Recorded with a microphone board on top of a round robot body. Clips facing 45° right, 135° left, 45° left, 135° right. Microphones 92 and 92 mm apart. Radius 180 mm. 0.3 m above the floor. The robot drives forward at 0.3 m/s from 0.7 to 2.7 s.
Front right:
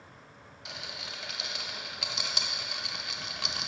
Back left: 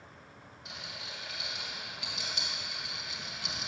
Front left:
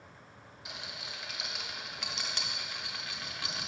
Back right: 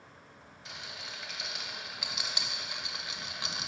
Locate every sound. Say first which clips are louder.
0.7 s a rattle: front right 3 dB, even; 35° right, 1.1 m; by 3.7 s 65° right, 0.7 m